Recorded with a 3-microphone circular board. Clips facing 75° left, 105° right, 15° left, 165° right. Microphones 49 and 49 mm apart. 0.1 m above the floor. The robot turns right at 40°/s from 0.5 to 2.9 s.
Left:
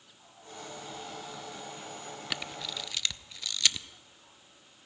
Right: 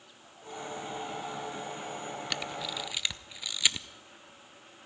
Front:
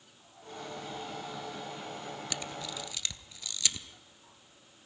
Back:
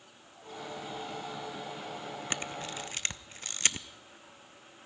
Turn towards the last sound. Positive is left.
turn(degrees=-175)